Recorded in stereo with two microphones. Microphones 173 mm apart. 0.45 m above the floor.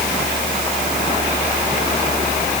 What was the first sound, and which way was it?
Only background noise.